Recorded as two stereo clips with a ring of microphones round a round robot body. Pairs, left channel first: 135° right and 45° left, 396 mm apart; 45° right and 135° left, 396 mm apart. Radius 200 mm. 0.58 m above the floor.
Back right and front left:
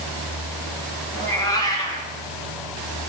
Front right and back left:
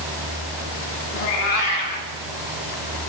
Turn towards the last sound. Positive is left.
turn(degrees=-55)